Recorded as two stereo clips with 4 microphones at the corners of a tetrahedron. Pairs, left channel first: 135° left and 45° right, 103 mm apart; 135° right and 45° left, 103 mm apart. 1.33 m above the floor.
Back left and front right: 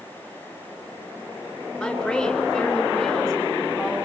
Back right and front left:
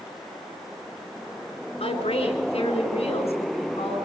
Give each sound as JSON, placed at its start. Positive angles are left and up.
{"t": 1.8, "sound": "a woman speaking", "azimuth_deg": -140, "distance_m": 5.0}